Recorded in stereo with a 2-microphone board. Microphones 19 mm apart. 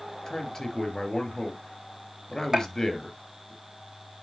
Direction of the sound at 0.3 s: 20° left (ahead or behind).